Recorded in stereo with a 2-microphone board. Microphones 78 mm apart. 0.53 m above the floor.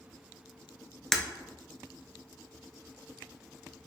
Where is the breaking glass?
5° left (ahead or behind), 0.7 m.